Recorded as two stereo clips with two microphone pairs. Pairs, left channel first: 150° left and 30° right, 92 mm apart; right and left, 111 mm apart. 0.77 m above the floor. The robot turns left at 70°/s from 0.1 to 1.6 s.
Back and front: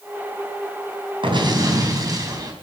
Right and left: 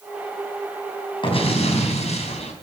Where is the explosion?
50° right, 3.5 m; by 2.5 s 75° right, 3.5 m.